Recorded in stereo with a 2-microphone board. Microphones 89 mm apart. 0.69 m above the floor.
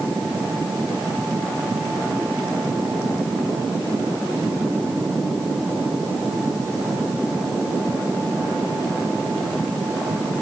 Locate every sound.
Only background noise.